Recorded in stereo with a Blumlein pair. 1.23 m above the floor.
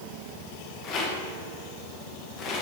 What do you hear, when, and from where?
0.8 s a rattle: 30° left, 1.3 m